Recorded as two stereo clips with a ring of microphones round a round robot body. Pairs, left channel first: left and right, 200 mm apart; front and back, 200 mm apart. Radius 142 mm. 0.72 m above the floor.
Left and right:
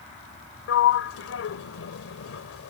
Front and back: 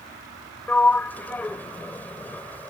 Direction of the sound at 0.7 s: 80° left.